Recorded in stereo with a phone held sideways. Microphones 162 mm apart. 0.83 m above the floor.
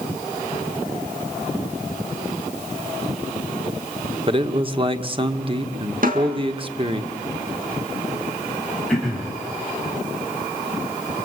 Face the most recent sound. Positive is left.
turn(degrees=0)  # may be behind; listen again after turning